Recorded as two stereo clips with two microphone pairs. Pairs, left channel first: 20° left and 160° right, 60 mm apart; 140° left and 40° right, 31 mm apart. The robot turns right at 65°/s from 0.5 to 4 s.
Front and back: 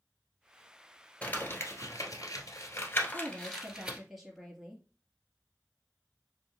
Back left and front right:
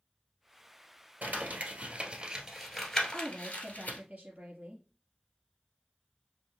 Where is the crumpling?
50° right, 1.3 m; by 4.0 s 130° left, 1.3 m.